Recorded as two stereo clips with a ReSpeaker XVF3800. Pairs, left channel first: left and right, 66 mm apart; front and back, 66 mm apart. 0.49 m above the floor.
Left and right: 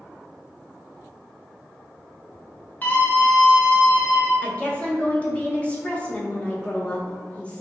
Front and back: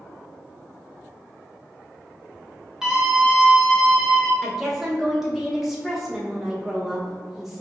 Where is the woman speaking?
105° left, 0.8 m.